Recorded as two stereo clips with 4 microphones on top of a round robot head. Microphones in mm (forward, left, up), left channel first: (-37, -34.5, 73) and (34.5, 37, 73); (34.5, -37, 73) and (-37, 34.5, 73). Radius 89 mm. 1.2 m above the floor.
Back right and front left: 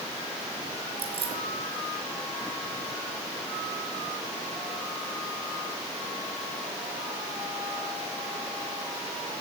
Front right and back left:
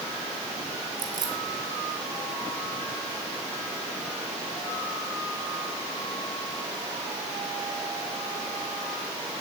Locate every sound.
1.0 s keys jangling: 80° left, 2.5 m